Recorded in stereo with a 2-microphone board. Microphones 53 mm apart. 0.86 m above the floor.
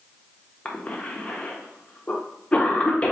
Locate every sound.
0.7 s a cough: 25° left (ahead or behind), 0.8 m